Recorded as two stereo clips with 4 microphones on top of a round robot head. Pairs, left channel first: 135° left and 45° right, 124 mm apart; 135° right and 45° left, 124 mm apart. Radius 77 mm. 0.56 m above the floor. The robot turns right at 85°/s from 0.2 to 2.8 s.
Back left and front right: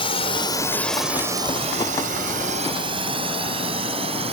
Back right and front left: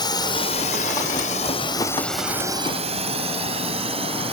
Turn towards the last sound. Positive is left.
turn(degrees=0)